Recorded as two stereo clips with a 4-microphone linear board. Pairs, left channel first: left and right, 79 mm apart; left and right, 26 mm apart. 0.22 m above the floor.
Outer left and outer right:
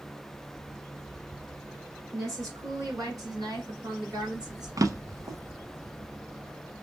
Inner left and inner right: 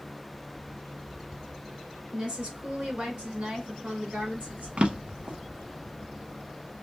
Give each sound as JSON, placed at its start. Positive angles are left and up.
{"t": 2.1, "sound": "a woman speaking", "side_deg": -45, "distance_m": 2.0}
{"t": 4.8, "sound": "a drawer", "side_deg": -50, "distance_m": 0.5}